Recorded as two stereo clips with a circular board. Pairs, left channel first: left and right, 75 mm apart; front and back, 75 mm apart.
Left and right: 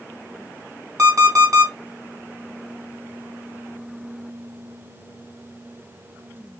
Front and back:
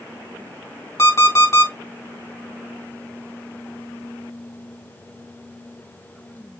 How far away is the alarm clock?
About 1.7 m.